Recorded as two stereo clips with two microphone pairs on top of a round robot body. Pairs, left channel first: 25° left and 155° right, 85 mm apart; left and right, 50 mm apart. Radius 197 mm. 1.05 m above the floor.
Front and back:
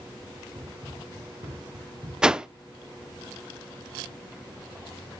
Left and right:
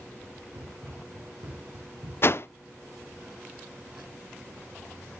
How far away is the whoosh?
About 0.7 m.